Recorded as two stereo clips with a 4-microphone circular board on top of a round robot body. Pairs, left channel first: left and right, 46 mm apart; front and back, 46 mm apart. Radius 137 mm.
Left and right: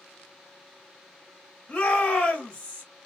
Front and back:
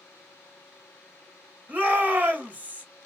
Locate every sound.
1.7 s a shout: 150° left, 1.7 m